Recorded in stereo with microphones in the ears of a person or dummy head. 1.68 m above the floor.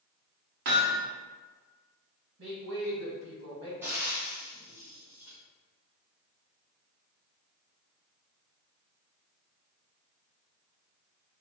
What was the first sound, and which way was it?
Hammering, 40° right (ahead or behind).